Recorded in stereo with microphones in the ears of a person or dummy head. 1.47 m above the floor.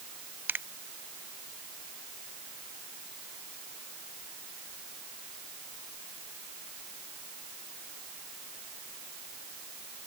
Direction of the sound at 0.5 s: 5° right (ahead or behind).